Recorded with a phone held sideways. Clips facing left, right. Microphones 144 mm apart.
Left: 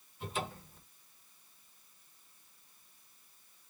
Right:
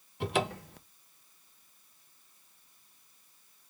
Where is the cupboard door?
75° right (ahead or behind), 0.6 m.